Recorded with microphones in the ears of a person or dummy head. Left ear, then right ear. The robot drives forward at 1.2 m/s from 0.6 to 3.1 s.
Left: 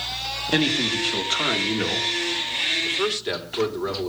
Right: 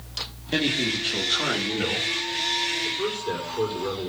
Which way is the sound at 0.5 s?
30° left (ahead or behind).